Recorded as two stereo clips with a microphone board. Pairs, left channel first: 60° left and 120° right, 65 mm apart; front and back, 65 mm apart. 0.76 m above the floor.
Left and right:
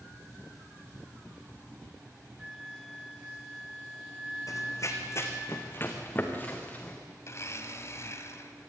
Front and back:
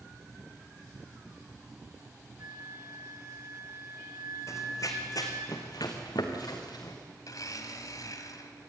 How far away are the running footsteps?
About 2.5 m.